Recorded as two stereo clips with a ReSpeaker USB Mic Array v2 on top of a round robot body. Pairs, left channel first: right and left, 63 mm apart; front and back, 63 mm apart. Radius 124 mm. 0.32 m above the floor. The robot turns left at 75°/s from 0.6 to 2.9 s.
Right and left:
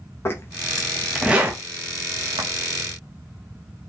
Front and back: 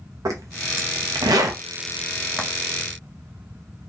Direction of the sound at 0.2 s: 145° right.